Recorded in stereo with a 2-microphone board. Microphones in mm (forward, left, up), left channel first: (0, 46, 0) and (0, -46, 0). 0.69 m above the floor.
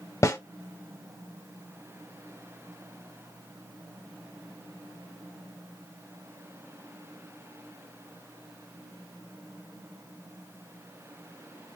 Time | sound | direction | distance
0.2 | a snare drum | 35° left (ahead or behind) | 0.9 m